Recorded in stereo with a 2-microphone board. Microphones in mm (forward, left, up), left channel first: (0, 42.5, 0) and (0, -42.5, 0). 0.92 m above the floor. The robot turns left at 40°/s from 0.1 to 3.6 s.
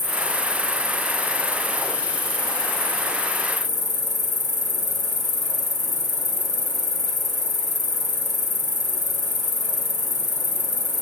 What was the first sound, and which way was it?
An insect, 90° right.